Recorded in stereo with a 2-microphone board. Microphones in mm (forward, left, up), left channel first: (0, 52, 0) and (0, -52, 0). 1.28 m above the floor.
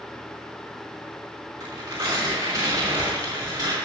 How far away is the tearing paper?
About 5 m.